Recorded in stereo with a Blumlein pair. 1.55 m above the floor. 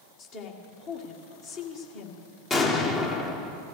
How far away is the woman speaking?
About 1.8 m.